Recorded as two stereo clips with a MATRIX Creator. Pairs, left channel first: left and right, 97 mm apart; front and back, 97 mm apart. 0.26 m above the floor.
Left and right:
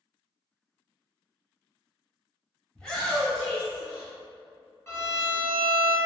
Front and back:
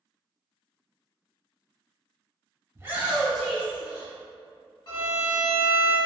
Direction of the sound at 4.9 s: 35° left.